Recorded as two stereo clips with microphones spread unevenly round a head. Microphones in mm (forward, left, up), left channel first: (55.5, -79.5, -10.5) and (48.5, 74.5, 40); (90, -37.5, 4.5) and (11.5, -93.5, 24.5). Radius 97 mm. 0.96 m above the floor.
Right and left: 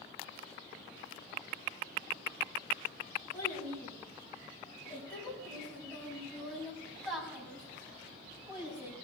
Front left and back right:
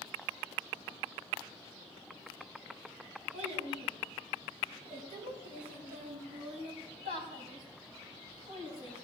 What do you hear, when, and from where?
3.3 s a child speaking: 155° right, 5.5 m; by 8.9 s 170° left, 5 m